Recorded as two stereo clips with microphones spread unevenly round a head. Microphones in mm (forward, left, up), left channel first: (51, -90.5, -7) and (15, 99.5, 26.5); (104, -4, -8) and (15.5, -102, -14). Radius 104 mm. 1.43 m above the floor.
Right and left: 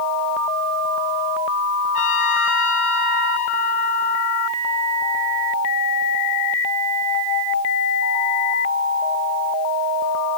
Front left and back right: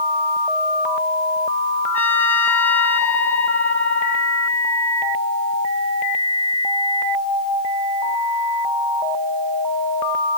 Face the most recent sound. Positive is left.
turn(degrees=-25)